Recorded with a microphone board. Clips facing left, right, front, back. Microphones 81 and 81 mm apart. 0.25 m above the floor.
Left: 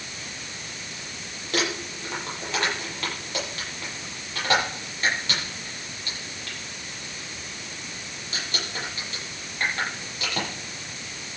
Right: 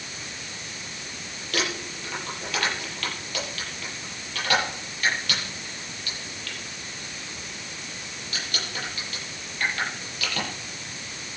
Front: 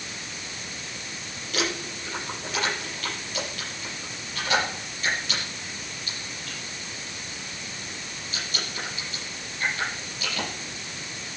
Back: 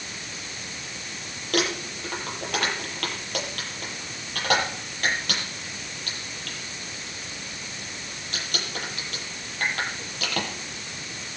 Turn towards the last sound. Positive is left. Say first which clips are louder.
# left 2 dB, back 3 dB
turn(degrees=155)